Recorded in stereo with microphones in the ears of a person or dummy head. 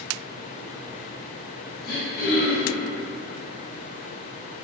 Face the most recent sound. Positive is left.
turn(degrees=45)  # may be behind; listen again after turning